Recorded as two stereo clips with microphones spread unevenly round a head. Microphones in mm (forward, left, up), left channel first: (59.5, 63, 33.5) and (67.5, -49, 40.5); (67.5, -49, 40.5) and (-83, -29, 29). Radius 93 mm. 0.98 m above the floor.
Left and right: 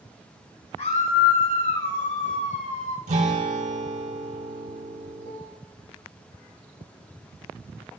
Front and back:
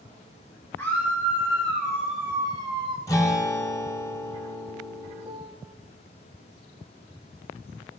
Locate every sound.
0.8 s a scream: 70° left, 2.5 m; by 3.0 s 115° left, 1.5 m
3.1 s a guitar: 75° right, 5 m
5.2 s a piano: 95° left, 1.8 m